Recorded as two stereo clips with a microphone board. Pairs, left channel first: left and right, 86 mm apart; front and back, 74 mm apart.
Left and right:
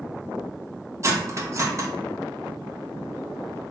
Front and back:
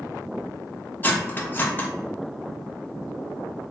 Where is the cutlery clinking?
50° right, 0.5 m.